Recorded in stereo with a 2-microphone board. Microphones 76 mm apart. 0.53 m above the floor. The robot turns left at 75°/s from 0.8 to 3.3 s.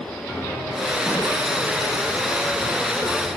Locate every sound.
0.3 s a piano: 160° left, 5.5 m; by 3.3 s 25° right, 5.5 m